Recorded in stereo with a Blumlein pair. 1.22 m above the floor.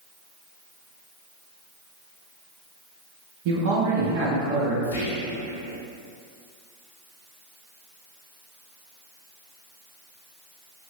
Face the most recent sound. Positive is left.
turn(degrees=65)